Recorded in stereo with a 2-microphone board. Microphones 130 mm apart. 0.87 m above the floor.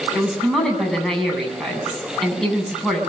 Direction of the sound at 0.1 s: 5° left (ahead or behind).